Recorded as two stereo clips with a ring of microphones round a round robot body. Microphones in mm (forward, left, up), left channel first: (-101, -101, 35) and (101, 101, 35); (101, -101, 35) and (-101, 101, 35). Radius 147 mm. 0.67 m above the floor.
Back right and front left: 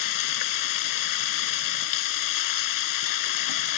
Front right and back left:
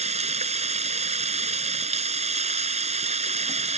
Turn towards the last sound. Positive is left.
turn(degrees=-155)